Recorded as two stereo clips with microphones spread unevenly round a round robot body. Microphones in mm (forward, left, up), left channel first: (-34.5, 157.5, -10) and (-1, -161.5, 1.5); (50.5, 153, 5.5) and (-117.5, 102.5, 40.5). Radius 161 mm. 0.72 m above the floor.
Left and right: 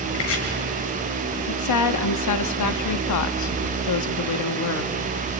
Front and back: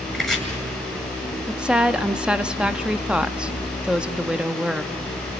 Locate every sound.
0.1 s chopping: 105° left, 8 m
1.5 s a woman speaking: 105° left, 1.1 m